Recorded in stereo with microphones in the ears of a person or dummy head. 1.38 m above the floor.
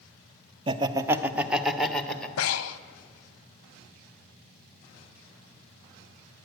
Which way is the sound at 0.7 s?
30° right (ahead or behind).